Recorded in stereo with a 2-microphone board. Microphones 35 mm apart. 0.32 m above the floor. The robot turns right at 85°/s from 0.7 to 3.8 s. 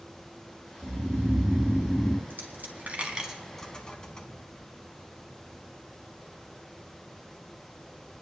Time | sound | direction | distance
0.8 | snoring | 105° right | 0.7 m
2.3 | a dropped coin | 70° right (ahead or behind) | 1.4 m